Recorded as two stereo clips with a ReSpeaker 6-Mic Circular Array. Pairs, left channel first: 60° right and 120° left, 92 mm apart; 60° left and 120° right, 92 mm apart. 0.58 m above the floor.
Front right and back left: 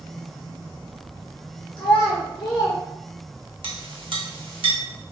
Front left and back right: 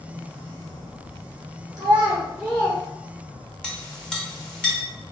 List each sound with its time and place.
1.8 s a child speaking: 80° right, 1.4 m; by 2.8 s 5° left, 0.9 m
3.6 s a clink: 140° left, 0.8 m